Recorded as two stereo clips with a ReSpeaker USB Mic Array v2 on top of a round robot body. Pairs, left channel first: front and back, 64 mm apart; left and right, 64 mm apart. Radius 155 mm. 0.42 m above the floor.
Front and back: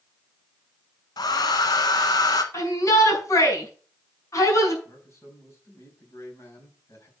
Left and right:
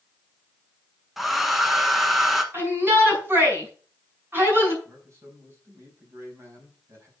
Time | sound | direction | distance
1.2 | a hair dryer | 5° right | 1.0 m
2.5 | a shout | 35° right | 6 m
4.8 | a man speaking | 45° right | 5 m